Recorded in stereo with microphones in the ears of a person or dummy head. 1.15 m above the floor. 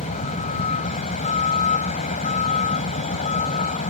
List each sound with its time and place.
0.0 s a vehicle: 40° left (ahead or behind)